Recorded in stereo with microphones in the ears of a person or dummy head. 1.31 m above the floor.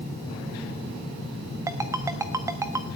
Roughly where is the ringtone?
Centre.